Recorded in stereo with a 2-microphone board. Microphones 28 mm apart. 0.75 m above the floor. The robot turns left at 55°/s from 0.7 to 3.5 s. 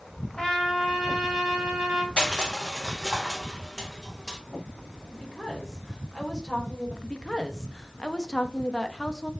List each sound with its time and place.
0.4 s a trumpet: 30° left, 1.7 m; by 2.1 s 45° right, 1.7 m
2.2 s crushing: 35° left (ahead or behind), 1.1 m; by 4.4 s 20° right (ahead or behind), 1.1 m
5.1 s a woman speaking: 15° left (ahead or behind), 3 m
7.0 s a woman speaking: 25° left (ahead or behind), 0.6 m